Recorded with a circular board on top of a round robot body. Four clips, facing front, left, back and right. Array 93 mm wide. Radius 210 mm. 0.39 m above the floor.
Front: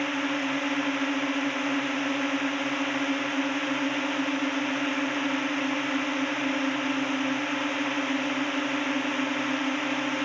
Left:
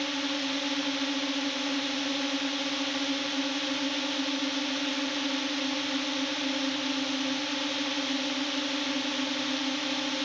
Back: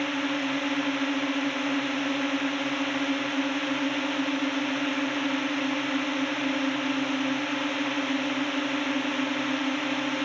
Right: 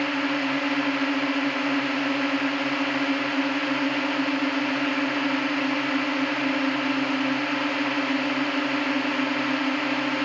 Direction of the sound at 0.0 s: 80° right.